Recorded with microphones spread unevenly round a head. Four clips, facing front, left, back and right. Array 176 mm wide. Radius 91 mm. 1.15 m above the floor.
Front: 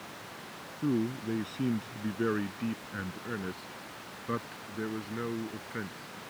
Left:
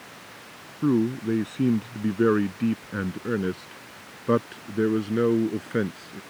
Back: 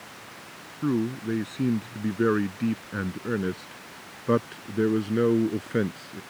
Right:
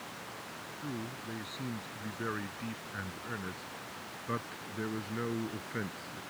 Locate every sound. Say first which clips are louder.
0.8 s a man speaking: left 19 dB, back 4 dB; 100° left; by 6.2 s 135° left